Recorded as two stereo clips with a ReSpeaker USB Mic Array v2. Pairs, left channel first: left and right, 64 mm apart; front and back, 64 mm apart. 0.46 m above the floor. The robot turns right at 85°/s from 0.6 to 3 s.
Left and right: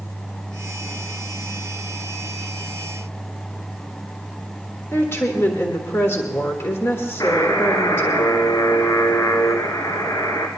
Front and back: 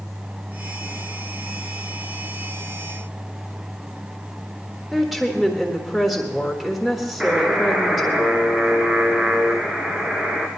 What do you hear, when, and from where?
4.9 s a woman speaking: 90° left, 1.5 m
7.2 s a buzzer: 105° left, 1.9 m